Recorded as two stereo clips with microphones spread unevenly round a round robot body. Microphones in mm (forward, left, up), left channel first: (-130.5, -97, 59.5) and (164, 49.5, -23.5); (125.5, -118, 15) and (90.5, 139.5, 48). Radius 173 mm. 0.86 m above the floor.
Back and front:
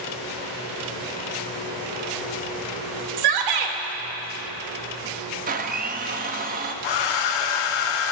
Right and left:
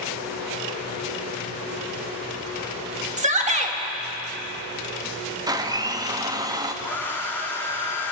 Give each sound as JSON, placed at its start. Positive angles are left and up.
{"t": 3.2, "sound": "a shout", "azimuth_deg": 35, "distance_m": 2.0}
{"t": 5.5, "sound": "a blender", "azimuth_deg": 20, "distance_m": 1.0}
{"t": 6.8, "sound": "a hair dryer", "azimuth_deg": -170, "distance_m": 0.8}